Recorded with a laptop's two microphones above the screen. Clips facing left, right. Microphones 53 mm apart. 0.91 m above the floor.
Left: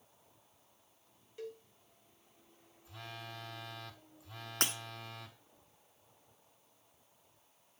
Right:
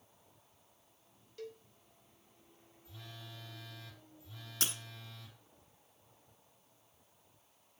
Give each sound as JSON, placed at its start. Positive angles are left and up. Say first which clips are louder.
{"t": 1.4, "sound": "a cowbell", "louder": "left 2 dB", "side_deg": 20, "distance_m": 3.0}
{"t": 2.9, "sound": "a phone buzzing", "louder": "left 6 dB", "side_deg": 60, "distance_m": 1.2}
{"t": 4.6, "sound": "breaking glass", "louder": "left 4 dB", "side_deg": 50, "distance_m": 1.0}